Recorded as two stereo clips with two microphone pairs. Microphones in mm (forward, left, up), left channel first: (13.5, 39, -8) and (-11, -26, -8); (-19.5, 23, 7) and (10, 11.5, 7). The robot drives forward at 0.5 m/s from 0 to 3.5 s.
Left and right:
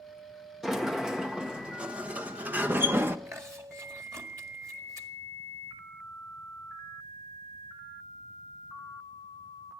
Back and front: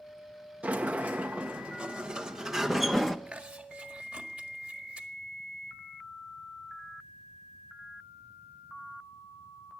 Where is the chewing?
70° right, 1.8 m; by 5.1 s 75° right, 1.7 m.